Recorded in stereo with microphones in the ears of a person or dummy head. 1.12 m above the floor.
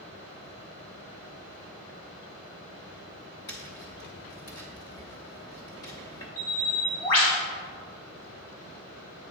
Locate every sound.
3.5 s tapping: 15° left (ahead or behind), 0.7 m
6.4 s a bird: 75° left (ahead or behind), 2.5 m